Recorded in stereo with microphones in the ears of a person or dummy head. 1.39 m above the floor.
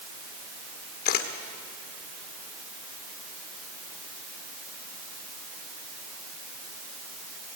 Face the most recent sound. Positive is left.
turn(degrees=60)  # may be behind; listen again after turning